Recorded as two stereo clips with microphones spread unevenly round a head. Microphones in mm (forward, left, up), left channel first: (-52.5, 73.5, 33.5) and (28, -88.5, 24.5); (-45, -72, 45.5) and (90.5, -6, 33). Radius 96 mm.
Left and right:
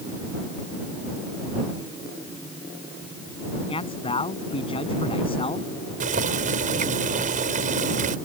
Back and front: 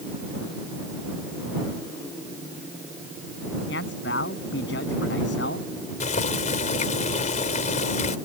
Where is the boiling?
115° right.